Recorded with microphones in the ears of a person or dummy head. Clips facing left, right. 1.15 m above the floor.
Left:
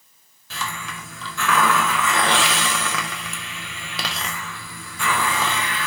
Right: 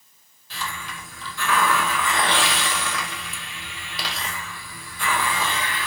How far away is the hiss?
About 0.6 m.